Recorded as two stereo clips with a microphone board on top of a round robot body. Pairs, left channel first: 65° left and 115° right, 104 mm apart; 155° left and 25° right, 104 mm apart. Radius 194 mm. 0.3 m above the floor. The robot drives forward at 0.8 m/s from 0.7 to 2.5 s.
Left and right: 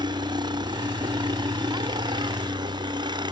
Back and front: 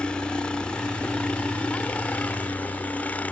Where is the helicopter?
125° right; by 3.3 s 130° right.